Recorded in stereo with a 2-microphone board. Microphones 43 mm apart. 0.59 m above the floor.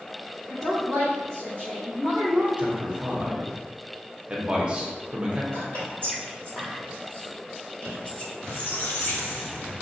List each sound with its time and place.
0.5 s a woman speaking: 30° left (ahead or behind), 1.6 m; by 2.5 s 45° left (ahead or behind), 2.5 m
2.6 s a man speaking: 25° right (ahead or behind), 0.7 m
5.5 s whispering: 40° left (ahead or behind), 1.9 m
8.4 s a squeak: 75° left (ahead or behind), 1.8 m